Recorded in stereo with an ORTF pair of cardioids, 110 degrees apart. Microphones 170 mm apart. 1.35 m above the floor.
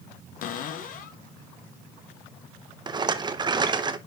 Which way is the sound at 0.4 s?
55° left.